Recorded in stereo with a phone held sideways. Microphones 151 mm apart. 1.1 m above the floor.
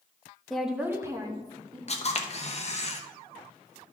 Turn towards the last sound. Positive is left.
turn(degrees=45)  # may be behind; listen again after turning